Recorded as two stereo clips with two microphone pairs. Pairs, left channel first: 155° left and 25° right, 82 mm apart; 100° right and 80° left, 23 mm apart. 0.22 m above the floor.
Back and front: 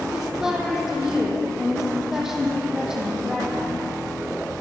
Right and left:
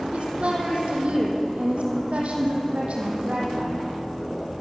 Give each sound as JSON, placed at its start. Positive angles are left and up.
{"t": 0.1, "sound": "a woman speaking", "azimuth_deg": 60, "distance_m": 7.0}